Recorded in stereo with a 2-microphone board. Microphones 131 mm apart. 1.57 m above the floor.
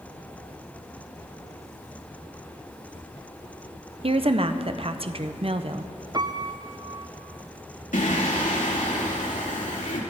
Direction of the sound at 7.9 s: 75° left (ahead or behind).